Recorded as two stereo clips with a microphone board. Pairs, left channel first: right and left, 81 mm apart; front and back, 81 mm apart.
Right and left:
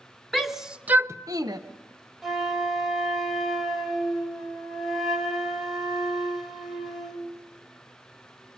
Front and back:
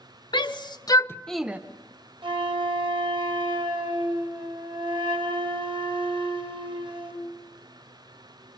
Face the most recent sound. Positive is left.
turn(degrees=180)